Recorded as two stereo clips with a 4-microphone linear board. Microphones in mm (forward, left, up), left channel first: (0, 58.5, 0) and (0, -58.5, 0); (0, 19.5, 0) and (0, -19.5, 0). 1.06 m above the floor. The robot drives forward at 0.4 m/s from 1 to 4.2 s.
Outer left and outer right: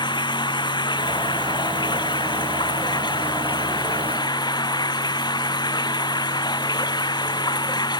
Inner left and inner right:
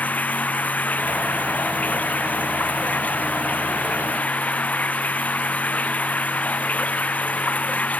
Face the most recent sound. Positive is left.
turn(degrees=40)  # may be behind; listen again after turning